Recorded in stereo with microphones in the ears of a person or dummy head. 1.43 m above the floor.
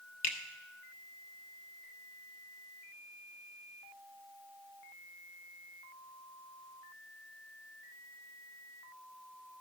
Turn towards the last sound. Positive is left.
turn(degrees=45)  # may be behind; listen again after turning